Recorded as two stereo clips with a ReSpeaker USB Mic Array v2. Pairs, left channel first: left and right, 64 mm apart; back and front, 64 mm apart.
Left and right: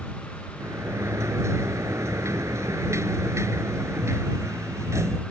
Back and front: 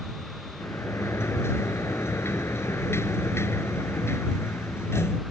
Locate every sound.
0.6 s a sliding door: 130° right